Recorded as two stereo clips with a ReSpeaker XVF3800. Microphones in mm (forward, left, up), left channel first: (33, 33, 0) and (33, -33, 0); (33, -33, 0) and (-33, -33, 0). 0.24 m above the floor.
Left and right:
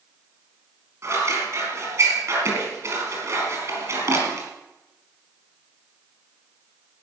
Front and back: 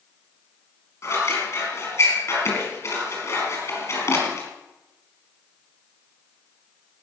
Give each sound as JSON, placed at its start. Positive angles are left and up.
{"t": 1.0, "sound": "scissors", "azimuth_deg": -50, "distance_m": 4.5}